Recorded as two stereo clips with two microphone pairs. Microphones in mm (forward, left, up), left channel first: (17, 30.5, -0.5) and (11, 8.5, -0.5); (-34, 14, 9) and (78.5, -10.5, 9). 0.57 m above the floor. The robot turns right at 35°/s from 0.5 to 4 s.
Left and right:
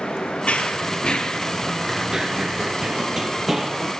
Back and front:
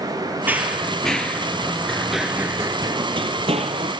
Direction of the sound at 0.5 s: 60° left.